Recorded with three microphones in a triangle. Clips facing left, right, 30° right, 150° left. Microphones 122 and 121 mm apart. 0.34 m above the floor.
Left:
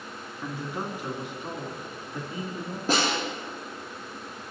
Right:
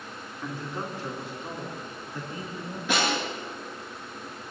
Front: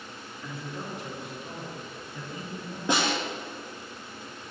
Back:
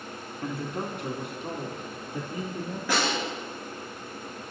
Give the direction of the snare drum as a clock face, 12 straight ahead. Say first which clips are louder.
Left 1 dB, front 1 dB; 11 o'clock.